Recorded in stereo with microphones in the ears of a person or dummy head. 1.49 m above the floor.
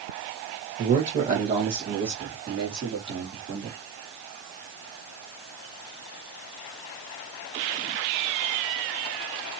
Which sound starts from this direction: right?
A man speaking, at 0.8 s.